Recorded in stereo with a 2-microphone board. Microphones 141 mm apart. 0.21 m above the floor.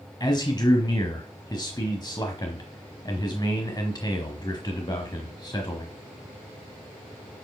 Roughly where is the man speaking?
Left.